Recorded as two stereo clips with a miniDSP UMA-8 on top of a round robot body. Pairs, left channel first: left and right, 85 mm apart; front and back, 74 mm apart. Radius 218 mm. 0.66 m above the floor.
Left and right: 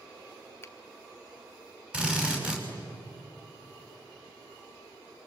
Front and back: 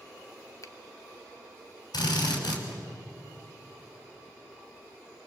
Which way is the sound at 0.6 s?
30° left.